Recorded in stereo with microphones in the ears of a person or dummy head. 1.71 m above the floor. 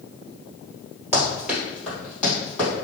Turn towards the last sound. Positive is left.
turn(degrees=10)  # may be behind; listen again after turning